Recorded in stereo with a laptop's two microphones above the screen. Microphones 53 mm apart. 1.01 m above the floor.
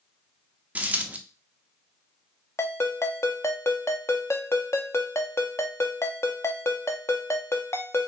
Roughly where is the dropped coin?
Right.